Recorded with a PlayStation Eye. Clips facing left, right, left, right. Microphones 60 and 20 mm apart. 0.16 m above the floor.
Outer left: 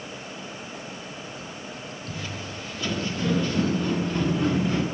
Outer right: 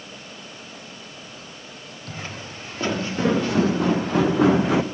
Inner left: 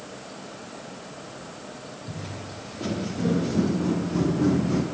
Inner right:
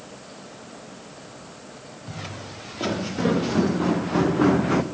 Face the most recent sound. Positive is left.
turn(degrees=-80)